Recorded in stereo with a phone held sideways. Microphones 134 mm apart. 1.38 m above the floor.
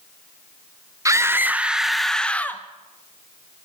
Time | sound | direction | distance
1.1 | a scream | 25° right (ahead or behind) | 1.6 m